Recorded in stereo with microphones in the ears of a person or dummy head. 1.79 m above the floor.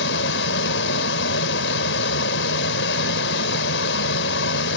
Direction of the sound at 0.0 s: 70° left (ahead or behind).